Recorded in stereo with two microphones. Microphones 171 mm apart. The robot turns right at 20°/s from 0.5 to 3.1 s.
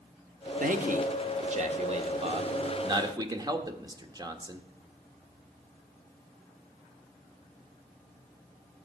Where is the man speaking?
55° right (ahead or behind), 1.3 m; by 4.6 s 25° right (ahead or behind), 1.3 m.